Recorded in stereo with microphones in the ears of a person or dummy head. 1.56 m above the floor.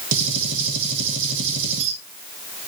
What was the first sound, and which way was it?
A gunshot, 70° right (ahead or behind).